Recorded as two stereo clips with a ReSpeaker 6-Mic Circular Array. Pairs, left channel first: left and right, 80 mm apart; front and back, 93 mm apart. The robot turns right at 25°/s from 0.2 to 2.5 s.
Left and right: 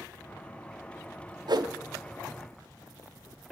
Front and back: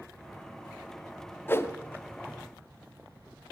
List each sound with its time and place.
1.5 s a whoosh: 65° right, 0.7 m; by 1.7 s 60° right, 0.7 m